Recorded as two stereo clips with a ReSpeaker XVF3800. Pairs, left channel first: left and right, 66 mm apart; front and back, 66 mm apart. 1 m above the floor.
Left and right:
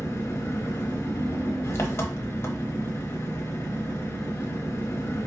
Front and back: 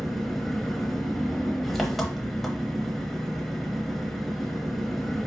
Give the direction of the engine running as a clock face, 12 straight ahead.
9 o'clock.